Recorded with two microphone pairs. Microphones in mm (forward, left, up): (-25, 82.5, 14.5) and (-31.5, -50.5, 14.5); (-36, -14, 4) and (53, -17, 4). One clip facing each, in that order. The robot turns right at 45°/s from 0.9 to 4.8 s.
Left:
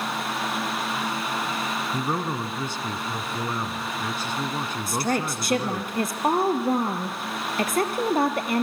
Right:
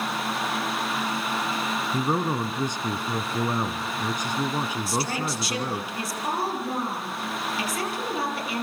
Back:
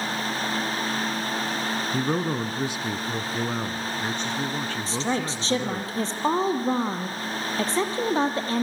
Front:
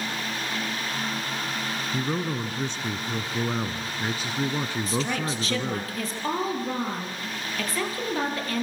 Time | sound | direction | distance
1.9 | a man speaking | 160° right | 1.0 m
4.9 | a woman speaking | 120° left | 3.5 m